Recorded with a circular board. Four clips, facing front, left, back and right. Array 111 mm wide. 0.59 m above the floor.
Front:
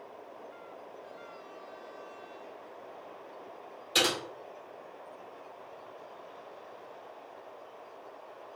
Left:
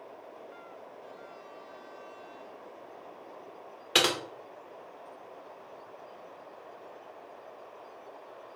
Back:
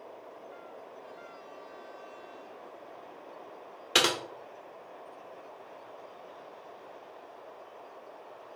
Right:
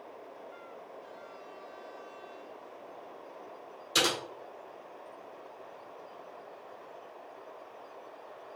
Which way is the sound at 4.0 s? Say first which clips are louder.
Left 2 dB, back 2 dB; 130° left.